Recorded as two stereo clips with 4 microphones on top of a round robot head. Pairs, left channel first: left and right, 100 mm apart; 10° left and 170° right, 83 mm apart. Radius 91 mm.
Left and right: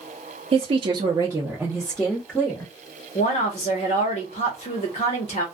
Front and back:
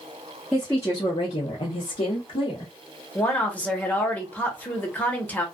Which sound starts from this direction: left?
A woman speaking, at 3.1 s.